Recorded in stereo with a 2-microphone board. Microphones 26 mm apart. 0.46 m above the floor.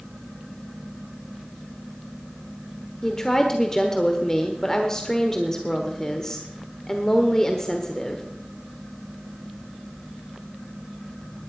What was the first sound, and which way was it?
A woman speaking, 20° left (ahead or behind).